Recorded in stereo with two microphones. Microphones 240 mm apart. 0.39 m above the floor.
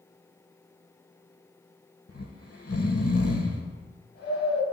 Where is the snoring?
75° left (ahead or behind), 0.9 m.